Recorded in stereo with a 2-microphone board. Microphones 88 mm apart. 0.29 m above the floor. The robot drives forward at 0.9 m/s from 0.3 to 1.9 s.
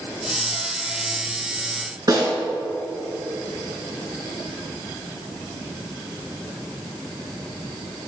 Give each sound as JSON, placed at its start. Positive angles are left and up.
{"t": 2.1, "sound": "a snare drum", "side_deg": -45, "distance_m": 2.5}